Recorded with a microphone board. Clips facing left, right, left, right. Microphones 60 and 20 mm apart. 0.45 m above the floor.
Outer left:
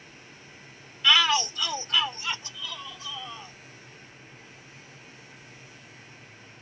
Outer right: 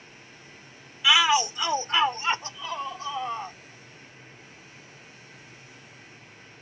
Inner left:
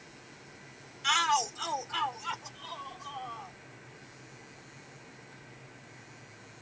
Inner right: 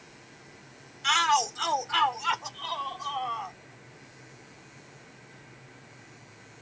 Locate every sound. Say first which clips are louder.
1.0 s a shout: outer right 2 dB, inner right 3 dB; 10° right (ahead or behind); by 3.6 s 35° right (ahead or behind)